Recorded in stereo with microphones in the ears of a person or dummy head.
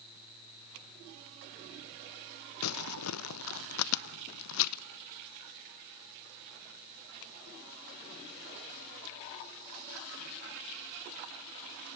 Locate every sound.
2.6 s crumpling: 85° left, 0.7 m